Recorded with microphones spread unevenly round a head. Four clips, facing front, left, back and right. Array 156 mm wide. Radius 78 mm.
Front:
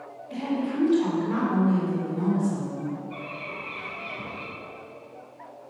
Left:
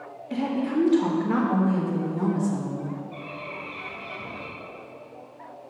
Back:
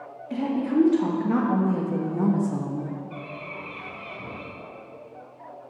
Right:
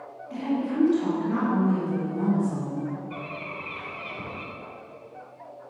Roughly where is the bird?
Ahead right.